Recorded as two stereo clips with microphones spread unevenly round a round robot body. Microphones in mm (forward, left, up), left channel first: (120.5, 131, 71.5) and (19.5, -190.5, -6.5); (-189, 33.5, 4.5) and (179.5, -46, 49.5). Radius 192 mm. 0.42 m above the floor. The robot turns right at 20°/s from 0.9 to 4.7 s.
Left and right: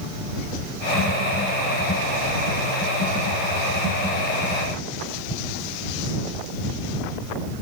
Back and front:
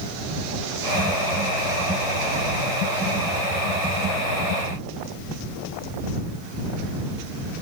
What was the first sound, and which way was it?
Only background noise.